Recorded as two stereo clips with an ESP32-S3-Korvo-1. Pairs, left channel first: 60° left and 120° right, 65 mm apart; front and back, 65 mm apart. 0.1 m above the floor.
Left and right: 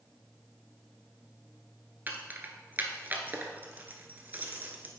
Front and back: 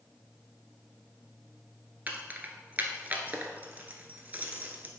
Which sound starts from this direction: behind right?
Keys jangling, at 2.1 s.